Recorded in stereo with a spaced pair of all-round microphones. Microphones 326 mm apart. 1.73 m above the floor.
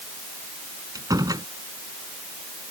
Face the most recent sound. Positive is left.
turn(degrees=-10)  # may be behind; listen again after turning